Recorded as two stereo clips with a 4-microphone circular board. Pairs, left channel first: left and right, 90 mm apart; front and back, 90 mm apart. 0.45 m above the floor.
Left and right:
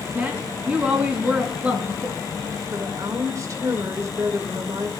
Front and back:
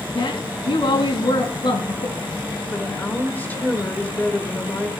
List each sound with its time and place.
0.1 s a woman speaking: 15° right, 3.5 m
2.7 s a woman speaking: 60° right, 1.9 m